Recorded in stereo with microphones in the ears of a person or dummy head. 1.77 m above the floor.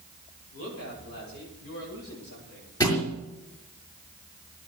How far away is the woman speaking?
About 8.5 m.